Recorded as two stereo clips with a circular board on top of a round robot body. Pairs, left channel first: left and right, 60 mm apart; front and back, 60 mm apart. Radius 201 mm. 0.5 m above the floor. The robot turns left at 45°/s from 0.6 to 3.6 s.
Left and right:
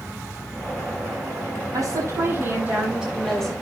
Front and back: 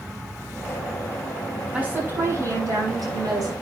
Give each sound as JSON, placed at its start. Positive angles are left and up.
{"t": 1.7, "sound": "a woman speaking", "azimuth_deg": -110, "distance_m": 6.0}